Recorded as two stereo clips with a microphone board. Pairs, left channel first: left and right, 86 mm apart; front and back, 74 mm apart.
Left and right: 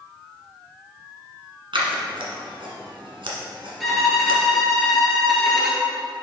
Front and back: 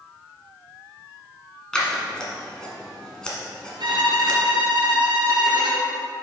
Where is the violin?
Straight behind, 1.8 m.